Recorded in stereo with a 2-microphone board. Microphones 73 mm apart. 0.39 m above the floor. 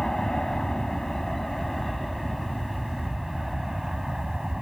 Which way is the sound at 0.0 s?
5° left (ahead or behind).